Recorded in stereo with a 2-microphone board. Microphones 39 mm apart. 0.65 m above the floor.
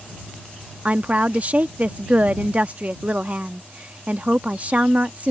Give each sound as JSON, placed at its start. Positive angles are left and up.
{"t": 0.8, "sound": "a woman speaking", "side_deg": -35}